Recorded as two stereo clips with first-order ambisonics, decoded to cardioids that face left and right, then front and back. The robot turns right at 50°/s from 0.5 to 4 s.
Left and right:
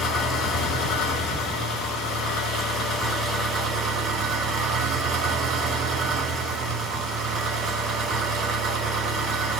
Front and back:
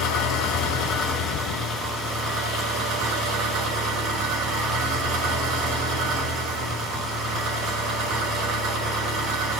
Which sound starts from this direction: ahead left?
An engine running, at 0.0 s.